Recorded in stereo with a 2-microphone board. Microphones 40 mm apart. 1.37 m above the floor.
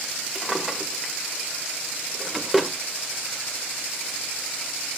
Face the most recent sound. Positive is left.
turn(degrees=-5)  # may be behind; listen again after turning